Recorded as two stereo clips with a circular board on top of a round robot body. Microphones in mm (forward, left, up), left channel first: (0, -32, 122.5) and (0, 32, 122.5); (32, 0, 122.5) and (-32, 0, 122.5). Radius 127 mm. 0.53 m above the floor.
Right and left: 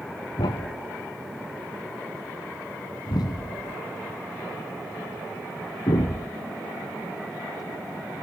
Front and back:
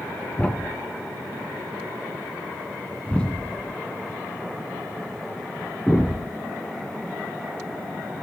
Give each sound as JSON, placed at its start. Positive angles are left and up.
{"t": 0.4, "sound": "a thud", "azimuth_deg": -75, "distance_m": 0.8}